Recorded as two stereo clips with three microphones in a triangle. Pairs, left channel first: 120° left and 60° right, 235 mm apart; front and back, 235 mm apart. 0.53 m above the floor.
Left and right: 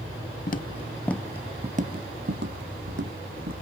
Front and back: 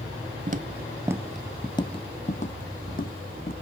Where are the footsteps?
145° left, 0.6 m; by 3.5 s 45° right, 1.4 m.